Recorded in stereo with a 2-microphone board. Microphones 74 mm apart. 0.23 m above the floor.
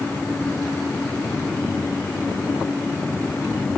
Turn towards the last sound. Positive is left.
No sound to turn to.